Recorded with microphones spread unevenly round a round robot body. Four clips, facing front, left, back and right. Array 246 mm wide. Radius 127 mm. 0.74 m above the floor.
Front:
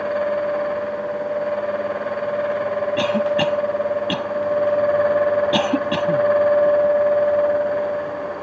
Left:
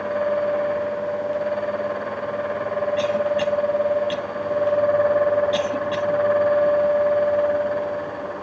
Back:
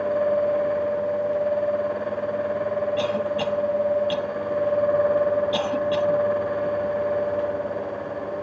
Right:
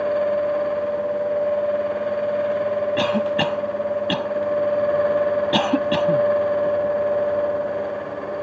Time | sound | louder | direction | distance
3.0 | a cough | even, front 5 dB | 45° right | ?